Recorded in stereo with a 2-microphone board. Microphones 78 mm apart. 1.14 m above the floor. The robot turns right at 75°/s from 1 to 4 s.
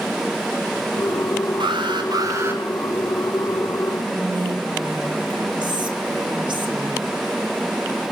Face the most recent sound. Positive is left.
turn(degrees=-75)  # may be behind; listen again after turning